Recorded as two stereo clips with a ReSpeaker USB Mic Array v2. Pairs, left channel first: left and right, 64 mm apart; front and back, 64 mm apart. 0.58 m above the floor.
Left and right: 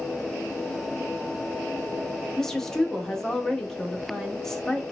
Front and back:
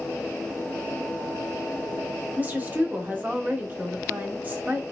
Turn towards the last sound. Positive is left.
turn(degrees=165)